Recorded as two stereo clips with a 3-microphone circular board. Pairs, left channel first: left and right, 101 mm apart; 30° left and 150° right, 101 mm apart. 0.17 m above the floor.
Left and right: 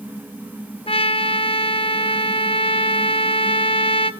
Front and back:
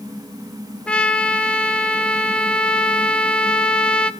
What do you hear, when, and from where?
0.9 s a trumpet: 110° left, 1.0 m